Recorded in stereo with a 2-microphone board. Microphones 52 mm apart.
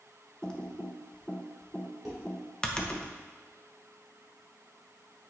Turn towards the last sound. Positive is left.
turn(degrees=-10)  # may be behind; listen again after turning